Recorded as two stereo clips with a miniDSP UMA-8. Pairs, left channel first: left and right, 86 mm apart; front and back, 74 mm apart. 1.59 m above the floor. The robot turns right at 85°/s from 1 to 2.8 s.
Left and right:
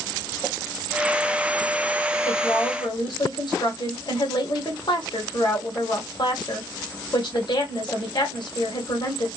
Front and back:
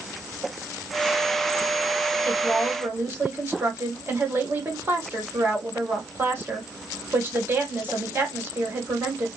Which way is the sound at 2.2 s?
75° left.